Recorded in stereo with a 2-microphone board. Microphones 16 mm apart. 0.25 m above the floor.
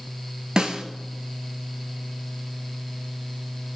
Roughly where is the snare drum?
Right.